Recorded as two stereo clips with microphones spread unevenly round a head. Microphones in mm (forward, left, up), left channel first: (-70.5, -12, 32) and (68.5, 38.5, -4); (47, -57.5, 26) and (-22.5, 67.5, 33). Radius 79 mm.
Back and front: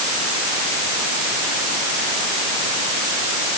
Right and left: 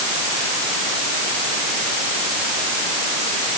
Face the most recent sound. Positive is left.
No sound to turn to.